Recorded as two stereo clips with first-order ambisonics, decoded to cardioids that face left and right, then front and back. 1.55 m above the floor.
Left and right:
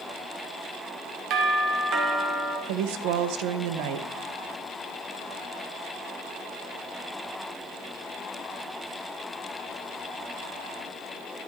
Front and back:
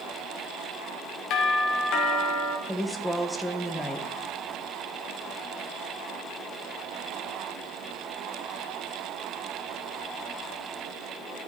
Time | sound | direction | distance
1.3 | a doorbell | 45° right | 1.6 m
2.7 | a woman speaking | 85° right | 0.9 m